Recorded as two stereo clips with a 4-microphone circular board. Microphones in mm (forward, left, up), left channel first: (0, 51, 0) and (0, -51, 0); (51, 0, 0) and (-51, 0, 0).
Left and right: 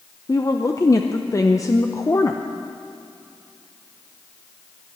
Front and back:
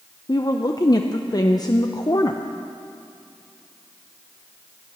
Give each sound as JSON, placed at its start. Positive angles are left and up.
{"t": 0.3, "sound": "a woman speaking", "azimuth_deg": 40, "distance_m": 0.6}